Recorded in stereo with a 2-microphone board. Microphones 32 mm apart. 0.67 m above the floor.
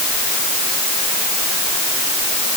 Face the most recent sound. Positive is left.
No sound to turn to.